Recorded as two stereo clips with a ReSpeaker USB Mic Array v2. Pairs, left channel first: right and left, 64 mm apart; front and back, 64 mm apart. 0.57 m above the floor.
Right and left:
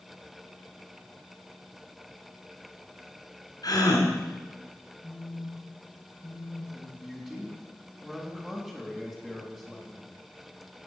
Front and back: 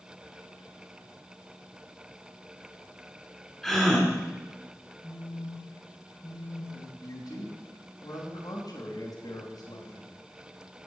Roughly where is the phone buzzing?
Ahead.